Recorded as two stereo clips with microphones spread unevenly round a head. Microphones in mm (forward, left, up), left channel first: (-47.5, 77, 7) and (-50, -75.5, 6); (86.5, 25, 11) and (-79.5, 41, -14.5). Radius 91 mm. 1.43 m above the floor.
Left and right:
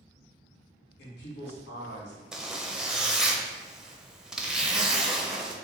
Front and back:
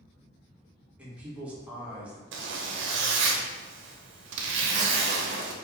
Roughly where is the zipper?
Behind.